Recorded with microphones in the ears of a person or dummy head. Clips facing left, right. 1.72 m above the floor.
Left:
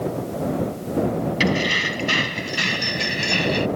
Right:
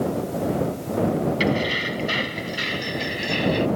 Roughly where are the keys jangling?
Left.